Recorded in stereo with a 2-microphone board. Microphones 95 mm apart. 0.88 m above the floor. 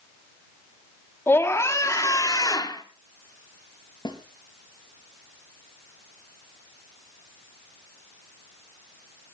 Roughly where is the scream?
Left.